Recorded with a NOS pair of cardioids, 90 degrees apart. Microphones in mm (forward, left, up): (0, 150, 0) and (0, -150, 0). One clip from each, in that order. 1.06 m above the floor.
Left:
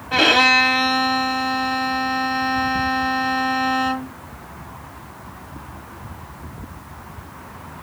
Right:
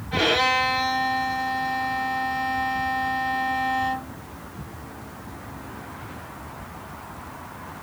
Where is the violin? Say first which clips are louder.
Left 7 dB; 60° left, 1.3 m.